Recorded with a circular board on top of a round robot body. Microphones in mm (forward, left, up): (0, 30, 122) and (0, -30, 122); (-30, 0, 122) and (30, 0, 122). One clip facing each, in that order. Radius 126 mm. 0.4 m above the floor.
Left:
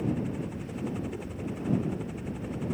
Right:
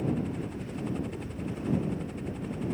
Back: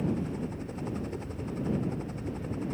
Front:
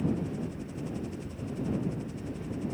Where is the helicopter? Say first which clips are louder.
Even, even; 175° left.